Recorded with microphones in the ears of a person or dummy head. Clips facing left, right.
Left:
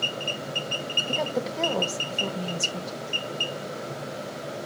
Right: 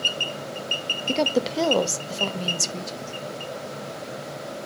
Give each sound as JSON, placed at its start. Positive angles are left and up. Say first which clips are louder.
{"t": 1.1, "sound": "a woman speaking", "louder": "right 6 dB", "side_deg": -30, "distance_m": 0.6}